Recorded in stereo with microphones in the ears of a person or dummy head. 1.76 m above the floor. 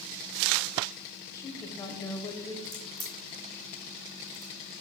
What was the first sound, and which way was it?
A woman speaking, 15° left (ahead or behind).